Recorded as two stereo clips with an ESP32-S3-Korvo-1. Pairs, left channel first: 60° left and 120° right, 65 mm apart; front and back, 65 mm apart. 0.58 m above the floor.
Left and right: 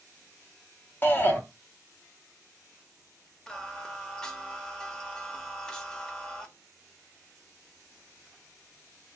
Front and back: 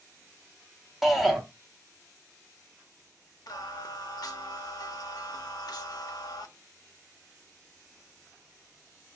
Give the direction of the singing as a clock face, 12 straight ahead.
1 o'clock.